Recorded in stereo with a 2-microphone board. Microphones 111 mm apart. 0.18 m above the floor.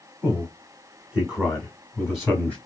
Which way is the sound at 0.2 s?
15° right (ahead or behind).